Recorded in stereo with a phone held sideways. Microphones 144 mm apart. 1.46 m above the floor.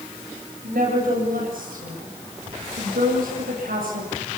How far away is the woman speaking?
About 7.5 m.